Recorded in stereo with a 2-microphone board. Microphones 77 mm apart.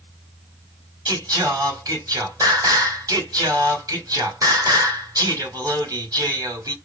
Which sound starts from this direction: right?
Singing, at 1.1 s.